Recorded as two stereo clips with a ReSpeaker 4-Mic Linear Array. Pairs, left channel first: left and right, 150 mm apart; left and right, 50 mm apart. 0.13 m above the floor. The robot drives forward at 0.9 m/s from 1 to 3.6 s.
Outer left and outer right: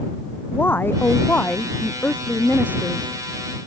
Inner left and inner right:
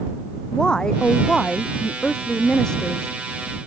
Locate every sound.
0.5 s a woman speaking: 15° left (ahead or behind); by 3.6 s 10° left (ahead or behind)